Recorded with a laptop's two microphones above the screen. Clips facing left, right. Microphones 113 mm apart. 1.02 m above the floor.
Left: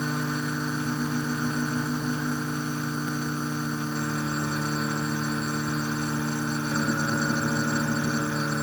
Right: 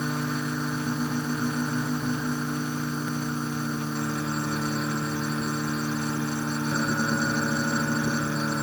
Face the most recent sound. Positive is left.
No sound to turn to.